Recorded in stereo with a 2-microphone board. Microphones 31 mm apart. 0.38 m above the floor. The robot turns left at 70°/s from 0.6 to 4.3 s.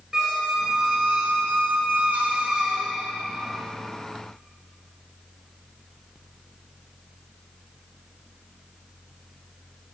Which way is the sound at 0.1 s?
15° right.